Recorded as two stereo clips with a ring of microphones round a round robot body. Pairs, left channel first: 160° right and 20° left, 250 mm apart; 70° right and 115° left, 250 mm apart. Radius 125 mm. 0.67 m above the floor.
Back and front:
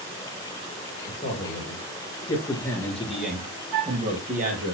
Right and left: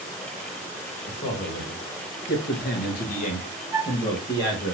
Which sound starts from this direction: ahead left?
A flute, at 3.7 s.